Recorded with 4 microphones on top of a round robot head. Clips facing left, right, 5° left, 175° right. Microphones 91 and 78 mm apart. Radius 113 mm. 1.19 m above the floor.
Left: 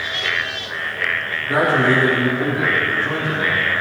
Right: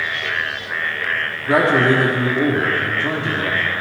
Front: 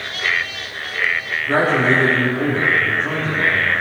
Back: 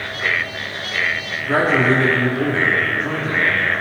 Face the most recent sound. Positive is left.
turn(degrees=-90)